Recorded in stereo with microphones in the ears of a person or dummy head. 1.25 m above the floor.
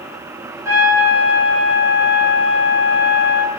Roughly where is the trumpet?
Centre.